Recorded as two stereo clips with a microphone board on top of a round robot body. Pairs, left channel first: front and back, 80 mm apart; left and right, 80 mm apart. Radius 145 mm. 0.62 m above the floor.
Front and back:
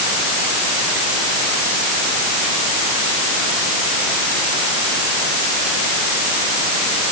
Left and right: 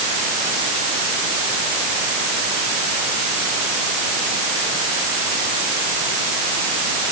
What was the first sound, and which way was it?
Only background noise.